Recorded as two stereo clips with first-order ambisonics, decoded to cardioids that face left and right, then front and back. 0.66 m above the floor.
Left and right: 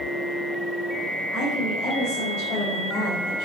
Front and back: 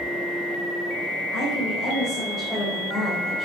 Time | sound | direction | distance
1.3 | a woman speaking | 45° left | 3 m